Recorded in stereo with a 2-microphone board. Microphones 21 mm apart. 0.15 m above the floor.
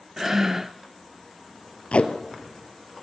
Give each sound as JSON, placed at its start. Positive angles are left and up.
{"t": 0.2, "sound": "breathing", "side_deg": -25, "distance_m": 0.6}
{"t": 1.9, "sound": "tape being pulled", "side_deg": 70, "distance_m": 1.8}